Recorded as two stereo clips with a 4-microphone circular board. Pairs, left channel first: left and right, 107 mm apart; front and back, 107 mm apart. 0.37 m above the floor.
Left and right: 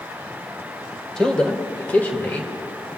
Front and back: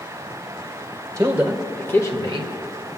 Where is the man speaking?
170° left, 1.2 m; by 2.5 s 20° left, 1.8 m.